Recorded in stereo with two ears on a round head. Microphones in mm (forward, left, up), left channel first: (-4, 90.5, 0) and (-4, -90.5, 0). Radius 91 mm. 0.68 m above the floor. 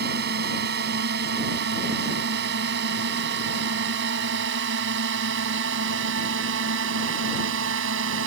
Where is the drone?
55° right (ahead or behind); by 8.3 s 70° right (ahead or behind).